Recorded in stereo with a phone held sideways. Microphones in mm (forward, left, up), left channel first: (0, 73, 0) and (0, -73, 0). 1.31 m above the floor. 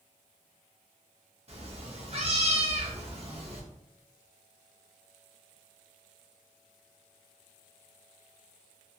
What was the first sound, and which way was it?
A cat meowing, 45° right (ahead or behind).